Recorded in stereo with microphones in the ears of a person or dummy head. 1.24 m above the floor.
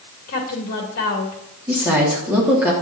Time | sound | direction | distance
0.3 | a woman speaking | 45° left (ahead or behind) | 2 m
1.7 | a woman speaking | 10° right (ahead or behind) | 3 m